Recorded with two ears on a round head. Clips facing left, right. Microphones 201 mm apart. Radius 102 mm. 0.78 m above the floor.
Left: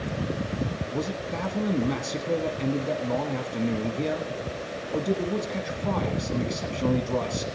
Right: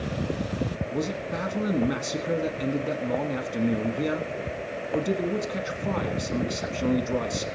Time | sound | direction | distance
0.9 | a man speaking | 5° right (ahead or behind) | 1.1 m